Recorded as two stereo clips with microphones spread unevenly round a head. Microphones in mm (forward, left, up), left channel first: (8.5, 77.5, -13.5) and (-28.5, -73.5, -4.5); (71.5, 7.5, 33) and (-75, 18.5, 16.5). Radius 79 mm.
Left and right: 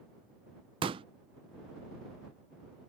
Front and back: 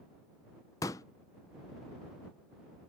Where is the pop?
60° right.